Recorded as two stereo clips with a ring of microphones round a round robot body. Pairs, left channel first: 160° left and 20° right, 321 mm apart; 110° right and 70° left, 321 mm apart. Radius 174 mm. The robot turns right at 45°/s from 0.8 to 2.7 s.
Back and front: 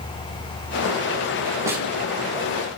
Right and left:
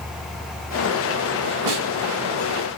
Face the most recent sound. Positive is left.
turn(degrees=105)